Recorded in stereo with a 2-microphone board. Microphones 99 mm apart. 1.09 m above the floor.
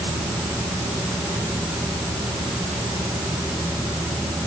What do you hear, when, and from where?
Only background noise.